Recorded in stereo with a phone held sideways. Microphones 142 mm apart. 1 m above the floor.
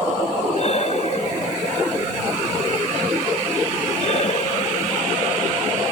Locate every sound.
0.6 s breathing: 50° left (ahead or behind)